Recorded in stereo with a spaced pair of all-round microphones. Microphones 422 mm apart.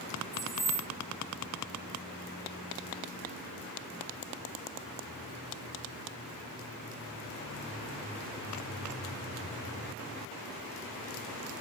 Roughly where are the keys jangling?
Right.